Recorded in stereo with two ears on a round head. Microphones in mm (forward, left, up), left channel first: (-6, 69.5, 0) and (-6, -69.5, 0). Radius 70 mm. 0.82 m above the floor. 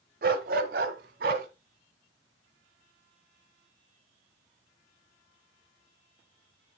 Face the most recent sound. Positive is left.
turn(degrees=-60)  # may be behind; listen again after turning